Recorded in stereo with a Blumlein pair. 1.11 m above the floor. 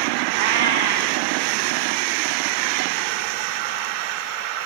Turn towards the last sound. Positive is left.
turn(degrees=-50)